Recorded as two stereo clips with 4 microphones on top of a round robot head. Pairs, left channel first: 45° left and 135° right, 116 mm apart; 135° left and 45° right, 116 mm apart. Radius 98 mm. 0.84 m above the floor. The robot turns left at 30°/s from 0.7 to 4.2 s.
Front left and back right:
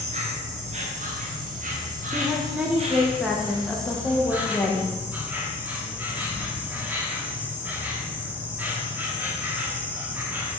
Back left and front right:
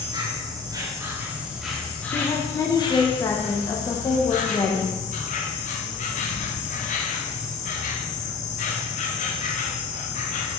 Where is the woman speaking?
170° left, 0.9 m; by 5.0 s 105° left, 0.9 m.